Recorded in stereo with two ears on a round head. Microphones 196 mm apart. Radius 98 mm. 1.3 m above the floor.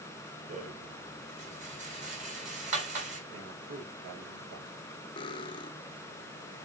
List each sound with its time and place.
0.5 s a rattle: 35° right (ahead or behind), 4 m
3.3 s a man speaking: 45° right (ahead or behind), 5.5 m
5.2 s cutlery clinking: 20° left (ahead or behind), 0.8 m